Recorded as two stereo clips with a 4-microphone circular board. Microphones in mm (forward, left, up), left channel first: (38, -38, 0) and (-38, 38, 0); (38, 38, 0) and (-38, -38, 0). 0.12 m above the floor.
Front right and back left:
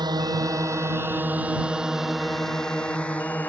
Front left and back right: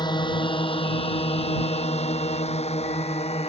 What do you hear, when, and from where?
0.0 s a drone: 90° left; by 3.5 s 30° left